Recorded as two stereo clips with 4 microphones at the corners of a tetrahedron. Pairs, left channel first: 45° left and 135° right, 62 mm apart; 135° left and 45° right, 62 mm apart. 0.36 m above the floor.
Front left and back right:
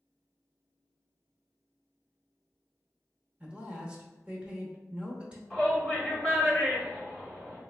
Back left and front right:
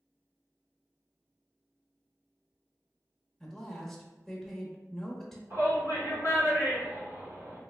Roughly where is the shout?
Ahead right.